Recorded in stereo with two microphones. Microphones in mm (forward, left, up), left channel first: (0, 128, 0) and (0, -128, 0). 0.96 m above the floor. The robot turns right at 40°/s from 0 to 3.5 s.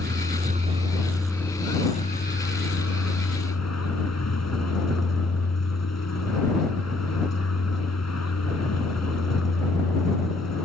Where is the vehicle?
50° right; by 10.7 s 90° left.